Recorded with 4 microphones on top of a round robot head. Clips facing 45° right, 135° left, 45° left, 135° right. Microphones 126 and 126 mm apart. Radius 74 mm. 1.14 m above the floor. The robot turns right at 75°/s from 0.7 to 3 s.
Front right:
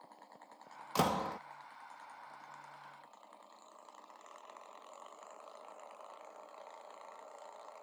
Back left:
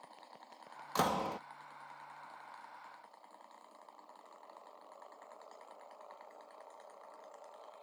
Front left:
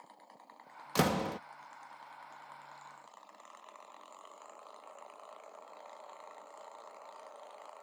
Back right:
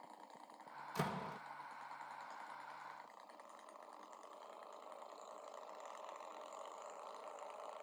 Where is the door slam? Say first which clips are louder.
Front right 1 dB, front left 12 dB; 35° left; by 1.4 s 70° left.